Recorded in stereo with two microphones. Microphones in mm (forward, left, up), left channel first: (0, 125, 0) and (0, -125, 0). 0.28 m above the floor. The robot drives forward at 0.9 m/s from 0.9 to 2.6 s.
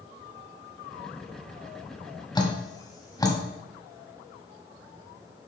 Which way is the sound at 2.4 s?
15° left (ahead or behind).